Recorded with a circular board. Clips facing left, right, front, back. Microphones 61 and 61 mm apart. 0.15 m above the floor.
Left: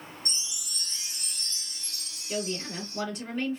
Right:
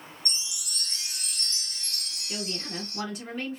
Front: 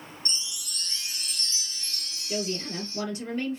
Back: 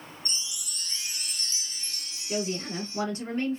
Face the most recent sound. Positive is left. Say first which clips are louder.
# left 3 dB, back 1 dB
turn(degrees=-175)